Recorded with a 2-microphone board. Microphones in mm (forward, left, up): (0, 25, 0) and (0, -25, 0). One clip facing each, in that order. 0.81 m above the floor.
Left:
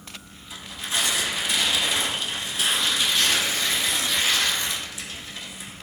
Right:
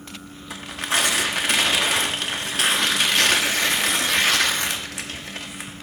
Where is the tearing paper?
55° right (ahead or behind), 1.1 m.